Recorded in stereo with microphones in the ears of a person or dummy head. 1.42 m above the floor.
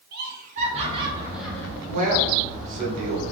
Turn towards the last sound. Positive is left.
turn(degrees=-55)  # may be behind; listen again after turning